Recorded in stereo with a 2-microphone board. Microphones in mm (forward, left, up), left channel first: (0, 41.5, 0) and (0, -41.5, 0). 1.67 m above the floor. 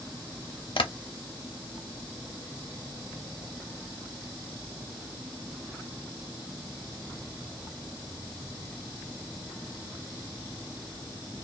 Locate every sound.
0.8 s tapping: 75° left (ahead or behind), 0.6 m